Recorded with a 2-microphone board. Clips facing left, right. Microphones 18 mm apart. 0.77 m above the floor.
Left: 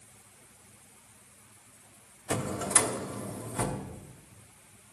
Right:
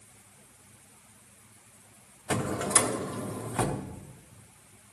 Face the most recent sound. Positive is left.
turn(degrees=-45)  # may be behind; listen again after turning